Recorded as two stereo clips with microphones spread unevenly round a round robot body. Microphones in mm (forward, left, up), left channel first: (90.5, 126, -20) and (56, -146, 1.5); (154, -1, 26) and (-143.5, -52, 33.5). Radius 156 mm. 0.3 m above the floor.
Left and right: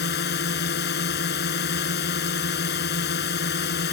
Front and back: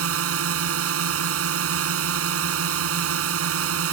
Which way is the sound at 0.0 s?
140° left.